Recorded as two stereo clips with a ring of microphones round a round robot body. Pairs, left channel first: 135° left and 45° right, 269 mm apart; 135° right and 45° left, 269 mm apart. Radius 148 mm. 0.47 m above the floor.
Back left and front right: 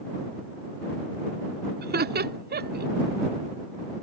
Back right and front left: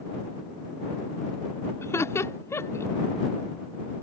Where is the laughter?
60° right.